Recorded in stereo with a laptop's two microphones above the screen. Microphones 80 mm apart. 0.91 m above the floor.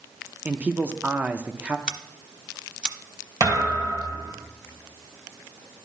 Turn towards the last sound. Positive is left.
turn(degrees=-45)  # may be behind; listen again after turning